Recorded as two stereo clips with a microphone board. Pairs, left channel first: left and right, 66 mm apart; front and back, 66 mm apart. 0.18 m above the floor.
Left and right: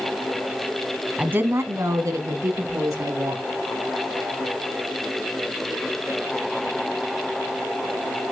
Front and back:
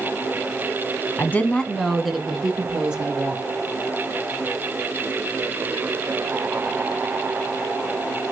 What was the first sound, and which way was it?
A woman speaking, 35° right.